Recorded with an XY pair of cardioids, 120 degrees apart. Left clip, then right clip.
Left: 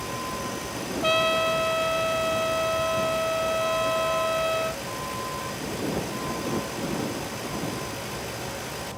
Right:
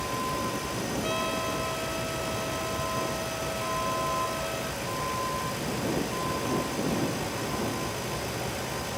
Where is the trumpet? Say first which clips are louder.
Left 10 dB; 55° left.